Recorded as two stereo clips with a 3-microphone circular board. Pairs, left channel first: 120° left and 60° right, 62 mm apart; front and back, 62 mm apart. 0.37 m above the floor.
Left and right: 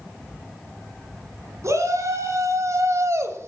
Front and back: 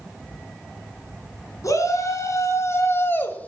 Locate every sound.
1.6 s a shout: 25° right, 3.5 m; by 3.5 s 60° right, 1.4 m